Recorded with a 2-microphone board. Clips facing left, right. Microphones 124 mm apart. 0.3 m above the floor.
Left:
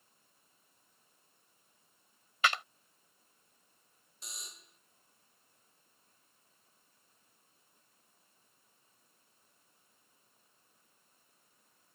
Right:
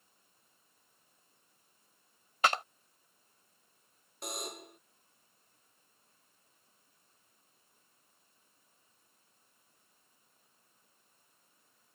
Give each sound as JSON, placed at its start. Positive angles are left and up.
{"t": 2.4, "sound": "a clap", "side_deg": -40}
{"t": 4.2, "sound": "a buzzer", "side_deg": -60}